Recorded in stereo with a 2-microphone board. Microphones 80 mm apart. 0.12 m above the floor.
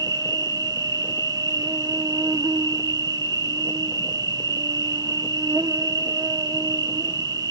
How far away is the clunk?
No clunk in this recording.